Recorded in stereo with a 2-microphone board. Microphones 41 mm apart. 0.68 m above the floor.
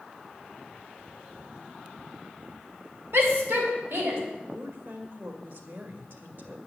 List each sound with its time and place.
3.1 s a shout: 70° right (ahead or behind), 3 m; by 4.2 s 75° right (ahead or behind), 4 m
4.5 s a woman speaking: 60° right (ahead or behind), 2 m